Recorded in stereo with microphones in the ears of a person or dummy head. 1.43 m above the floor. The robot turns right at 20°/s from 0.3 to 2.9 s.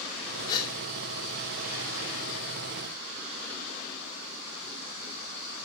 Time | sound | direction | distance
0.5 | a gasp | 25° left (ahead or behind) | 3.5 m